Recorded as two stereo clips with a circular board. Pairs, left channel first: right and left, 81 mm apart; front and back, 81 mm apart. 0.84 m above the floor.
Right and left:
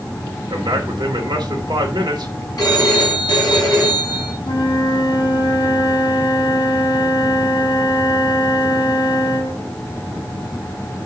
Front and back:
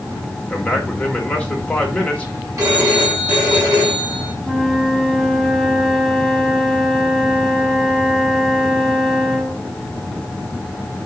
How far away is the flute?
About 2.5 m.